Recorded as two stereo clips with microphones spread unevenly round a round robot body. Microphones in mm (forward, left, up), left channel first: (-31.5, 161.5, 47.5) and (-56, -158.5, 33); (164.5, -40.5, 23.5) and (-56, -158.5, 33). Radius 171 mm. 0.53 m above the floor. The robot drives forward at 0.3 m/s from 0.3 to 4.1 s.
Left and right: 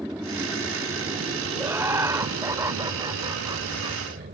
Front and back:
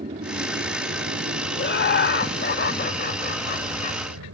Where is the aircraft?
175° right; by 4.3 s 155° right.